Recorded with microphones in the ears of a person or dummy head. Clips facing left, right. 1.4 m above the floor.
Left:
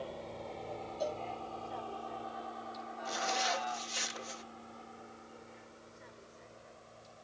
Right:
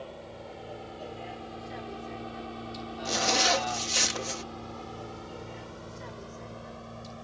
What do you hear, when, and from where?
0.0 s a vehicle: centre (ahead or behind); by 7.2 s 80° right
1.0 s a cowbell: 75° left (ahead or behind)
3.0 s a zipper: 70° right (ahead or behind)